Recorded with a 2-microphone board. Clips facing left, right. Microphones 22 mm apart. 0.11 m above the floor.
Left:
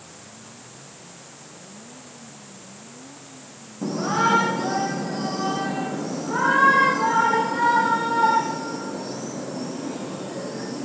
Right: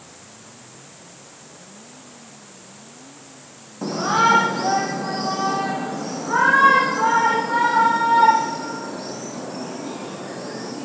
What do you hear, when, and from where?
3.8 s a shout: 45° right (ahead or behind), 5 m; by 10.9 s 35° right (ahead or behind), 13.5 m